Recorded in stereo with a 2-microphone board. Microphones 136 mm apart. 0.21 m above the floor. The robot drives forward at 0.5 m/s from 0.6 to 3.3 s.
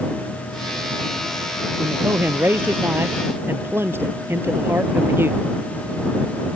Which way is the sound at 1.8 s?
15° right (ahead or behind).